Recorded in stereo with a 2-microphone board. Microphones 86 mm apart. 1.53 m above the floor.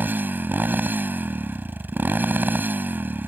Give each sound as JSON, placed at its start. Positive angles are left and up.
{"t": 0.0, "sound": "a motorcycle", "side_deg": -20}